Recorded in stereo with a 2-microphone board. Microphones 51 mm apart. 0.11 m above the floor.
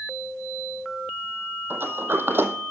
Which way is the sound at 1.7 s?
50° right (ahead or behind).